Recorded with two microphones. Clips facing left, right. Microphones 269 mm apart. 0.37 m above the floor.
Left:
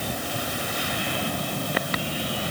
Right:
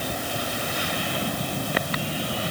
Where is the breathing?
I don't hear breathing.